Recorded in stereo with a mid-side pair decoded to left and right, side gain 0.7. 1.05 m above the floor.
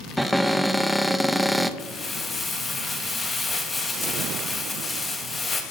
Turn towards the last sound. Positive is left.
turn(degrees=20)